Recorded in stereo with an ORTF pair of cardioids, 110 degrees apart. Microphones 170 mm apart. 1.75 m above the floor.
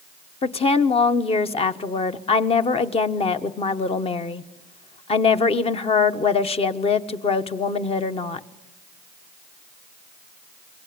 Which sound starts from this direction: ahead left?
A woman speaking, at 0.4 s.